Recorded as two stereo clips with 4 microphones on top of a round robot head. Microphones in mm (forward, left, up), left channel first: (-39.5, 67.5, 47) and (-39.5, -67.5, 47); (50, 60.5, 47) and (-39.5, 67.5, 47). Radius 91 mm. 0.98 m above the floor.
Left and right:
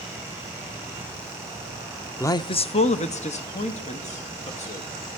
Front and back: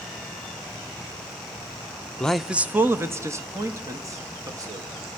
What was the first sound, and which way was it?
A man speaking, 55° left.